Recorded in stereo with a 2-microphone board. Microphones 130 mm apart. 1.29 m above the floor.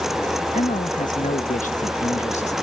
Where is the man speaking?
80° left; by 2.5 s 60° left (ahead or behind).